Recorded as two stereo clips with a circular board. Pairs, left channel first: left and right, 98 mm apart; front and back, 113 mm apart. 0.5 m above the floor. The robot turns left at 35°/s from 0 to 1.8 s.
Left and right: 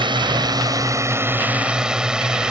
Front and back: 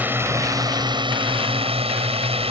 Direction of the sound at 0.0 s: 110° right.